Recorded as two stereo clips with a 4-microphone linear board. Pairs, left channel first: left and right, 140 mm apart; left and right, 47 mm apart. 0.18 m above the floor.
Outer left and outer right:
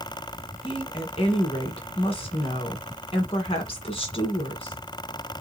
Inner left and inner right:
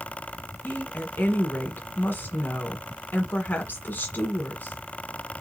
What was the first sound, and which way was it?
A woman speaking, 40° left (ahead or behind).